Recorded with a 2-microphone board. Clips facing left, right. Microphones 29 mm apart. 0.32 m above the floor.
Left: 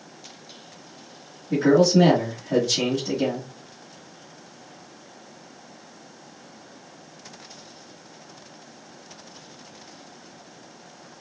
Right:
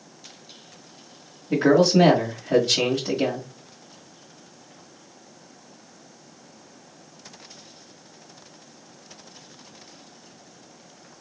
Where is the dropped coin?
I don't hear a dropped coin.